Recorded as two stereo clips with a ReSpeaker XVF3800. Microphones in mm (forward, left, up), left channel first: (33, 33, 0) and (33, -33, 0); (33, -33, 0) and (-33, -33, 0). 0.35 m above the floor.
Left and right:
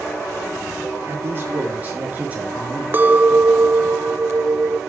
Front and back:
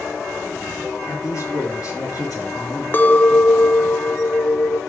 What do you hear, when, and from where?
1.1 s a man speaking: 35° right, 5 m; by 2.8 s 15° right, 5.5 m
2.9 s a clink: 45° right, 0.5 m